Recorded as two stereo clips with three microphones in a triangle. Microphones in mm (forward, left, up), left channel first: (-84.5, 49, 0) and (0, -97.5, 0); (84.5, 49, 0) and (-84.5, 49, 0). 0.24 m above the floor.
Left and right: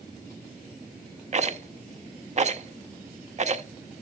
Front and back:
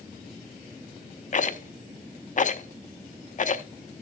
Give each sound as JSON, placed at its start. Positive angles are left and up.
{"t": 1.3, "sound": "a rattle", "azimuth_deg": -25, "distance_m": 0.6}